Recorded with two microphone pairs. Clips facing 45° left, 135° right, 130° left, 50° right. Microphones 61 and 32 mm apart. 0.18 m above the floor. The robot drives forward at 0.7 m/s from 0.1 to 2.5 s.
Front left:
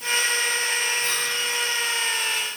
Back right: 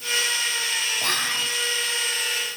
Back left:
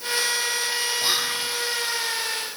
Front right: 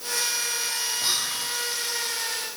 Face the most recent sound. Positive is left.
turn(degrees=-165)